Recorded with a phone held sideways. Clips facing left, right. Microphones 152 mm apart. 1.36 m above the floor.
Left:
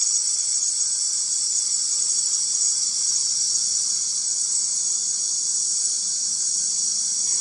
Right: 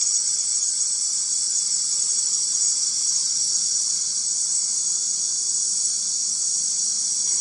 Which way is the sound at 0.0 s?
Centre (ahead or behind).